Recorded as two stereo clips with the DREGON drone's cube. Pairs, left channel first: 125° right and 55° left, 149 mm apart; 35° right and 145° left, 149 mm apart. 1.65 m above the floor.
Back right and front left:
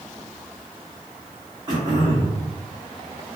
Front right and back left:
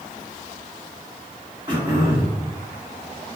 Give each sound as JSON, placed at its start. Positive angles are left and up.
{"t": 1.7, "sound": "throat clearing", "azimuth_deg": 100, "distance_m": 1.5}